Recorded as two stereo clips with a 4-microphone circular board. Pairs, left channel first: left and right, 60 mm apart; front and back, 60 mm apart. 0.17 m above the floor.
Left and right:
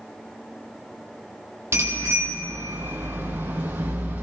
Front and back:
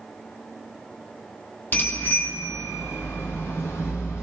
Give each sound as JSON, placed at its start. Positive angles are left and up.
{"t": 1.7, "sound": "a bicycle bell", "azimuth_deg": -55, "distance_m": 4.0}